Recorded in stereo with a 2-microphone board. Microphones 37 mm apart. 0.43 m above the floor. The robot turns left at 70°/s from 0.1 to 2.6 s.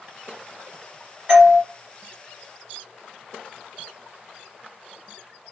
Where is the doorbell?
35° right (ahead or behind), 1.8 m; by 1.6 s 20° right (ahead or behind), 1.8 m.